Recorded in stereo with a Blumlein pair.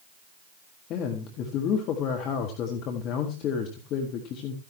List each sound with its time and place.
0.9 s a man speaking: 35° left, 1.6 m